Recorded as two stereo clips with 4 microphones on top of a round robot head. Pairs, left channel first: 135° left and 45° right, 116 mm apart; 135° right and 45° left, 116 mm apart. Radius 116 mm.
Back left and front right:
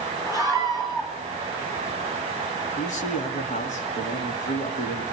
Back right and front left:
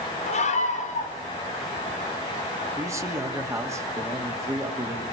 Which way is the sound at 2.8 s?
110° left.